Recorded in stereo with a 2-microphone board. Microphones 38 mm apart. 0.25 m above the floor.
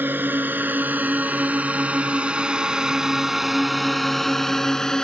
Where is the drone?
55° right (ahead or behind); by 5.0 s 20° left (ahead or behind).